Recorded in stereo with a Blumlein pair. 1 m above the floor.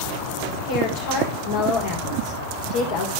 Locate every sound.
0.7 s a woman speaking: 55° left, 3.5 m